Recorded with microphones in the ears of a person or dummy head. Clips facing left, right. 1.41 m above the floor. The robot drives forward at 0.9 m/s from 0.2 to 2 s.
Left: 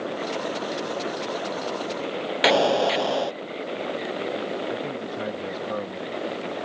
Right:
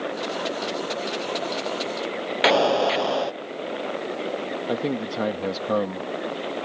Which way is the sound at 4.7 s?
65° right (ahead or behind).